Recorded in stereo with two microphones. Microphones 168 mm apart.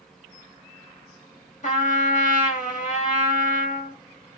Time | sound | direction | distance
1.6 | a trumpet | 50° left (ahead or behind) | 1.6 m